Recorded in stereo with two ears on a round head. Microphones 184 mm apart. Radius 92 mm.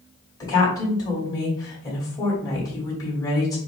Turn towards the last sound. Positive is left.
turn(degrees=15)  # may be behind; listen again after turning